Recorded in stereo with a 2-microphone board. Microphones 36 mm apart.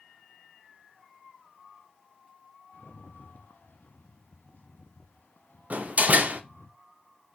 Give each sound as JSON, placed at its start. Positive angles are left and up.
{"t": 2.7, "sound": "a rattle", "side_deg": 65, "distance_m": 0.7}
{"t": 5.7, "sound": "a door slam", "side_deg": -45, "distance_m": 0.6}